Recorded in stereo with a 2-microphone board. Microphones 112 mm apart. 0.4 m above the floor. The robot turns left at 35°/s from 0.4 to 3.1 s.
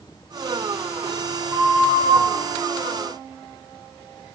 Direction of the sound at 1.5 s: 20° right (ahead or behind).